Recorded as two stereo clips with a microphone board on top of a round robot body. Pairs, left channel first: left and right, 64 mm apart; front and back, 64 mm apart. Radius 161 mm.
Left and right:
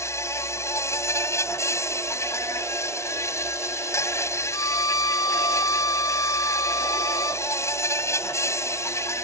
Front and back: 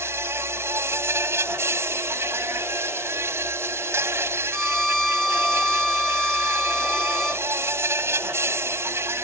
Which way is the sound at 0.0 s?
130° left.